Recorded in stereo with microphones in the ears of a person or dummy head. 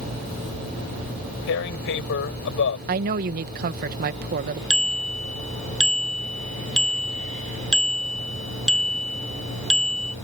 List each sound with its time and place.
1.5 s tearing paper: 60° left (ahead or behind)
2.9 s a woman speaking: 50° right (ahead or behind)
4.7 s a bicycle bell: 5° left (ahead or behind)